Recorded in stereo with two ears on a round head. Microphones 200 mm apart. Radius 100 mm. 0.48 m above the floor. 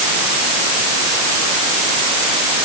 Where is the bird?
No bird in this recording.